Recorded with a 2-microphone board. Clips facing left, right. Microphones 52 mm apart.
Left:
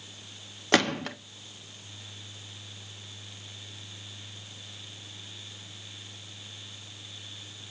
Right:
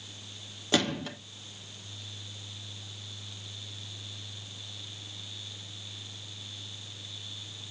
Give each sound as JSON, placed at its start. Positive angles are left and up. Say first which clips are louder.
{"t": 0.7, "sound": "a gunshot", "louder": "left 4 dB", "side_deg": 65, "distance_m": 1.0}